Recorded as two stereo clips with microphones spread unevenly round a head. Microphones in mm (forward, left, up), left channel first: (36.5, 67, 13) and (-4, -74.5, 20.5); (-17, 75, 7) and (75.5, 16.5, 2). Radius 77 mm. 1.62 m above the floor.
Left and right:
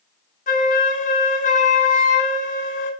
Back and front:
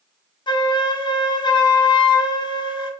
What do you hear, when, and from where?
0.5 s a flute: 110° left, 0.7 m